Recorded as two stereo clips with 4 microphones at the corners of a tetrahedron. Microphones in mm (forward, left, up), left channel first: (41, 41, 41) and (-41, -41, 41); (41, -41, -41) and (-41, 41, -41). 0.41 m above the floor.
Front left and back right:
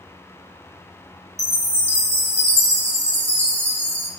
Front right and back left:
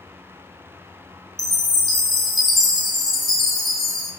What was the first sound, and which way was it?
A chime, 135° right.